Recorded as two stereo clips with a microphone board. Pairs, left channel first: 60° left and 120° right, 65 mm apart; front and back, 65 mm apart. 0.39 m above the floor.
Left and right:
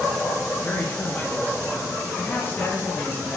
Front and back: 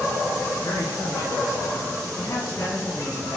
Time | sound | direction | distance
0.6 | a man speaking | 5° left | 3.5 m